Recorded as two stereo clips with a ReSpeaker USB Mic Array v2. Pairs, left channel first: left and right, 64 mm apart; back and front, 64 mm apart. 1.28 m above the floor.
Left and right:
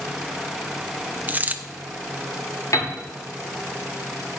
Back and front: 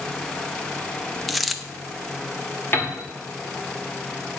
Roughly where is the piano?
Behind left.